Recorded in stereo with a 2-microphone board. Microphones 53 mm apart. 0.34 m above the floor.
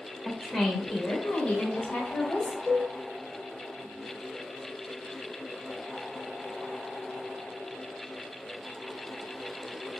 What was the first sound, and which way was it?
A woman speaking, 5° right (ahead or behind).